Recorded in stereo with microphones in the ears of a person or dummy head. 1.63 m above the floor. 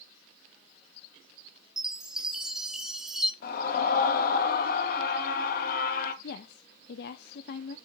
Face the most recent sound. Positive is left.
turn(degrees=60)  # may be behind; listen again after turning